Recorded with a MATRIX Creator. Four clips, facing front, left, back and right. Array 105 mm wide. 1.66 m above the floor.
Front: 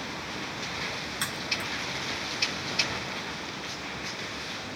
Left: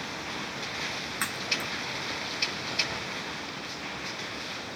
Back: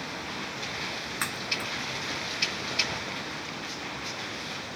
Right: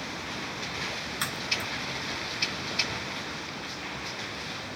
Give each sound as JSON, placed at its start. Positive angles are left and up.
{"t": 1.2, "sound": "a crack", "azimuth_deg": 140, "distance_m": 1.7}